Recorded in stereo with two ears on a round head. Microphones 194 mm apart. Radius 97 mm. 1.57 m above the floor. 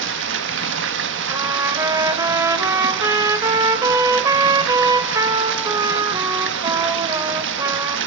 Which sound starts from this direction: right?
Running water, at 0.0 s.